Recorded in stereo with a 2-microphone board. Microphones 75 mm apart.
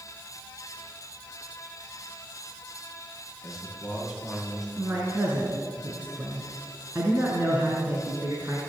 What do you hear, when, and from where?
3.4 s a man speaking: centre (ahead or behind), 8.5 m; by 4.7 s 5° right (ahead or behind), 9 m
4.8 s a man speaking: 30° right (ahead or behind), 4.5 m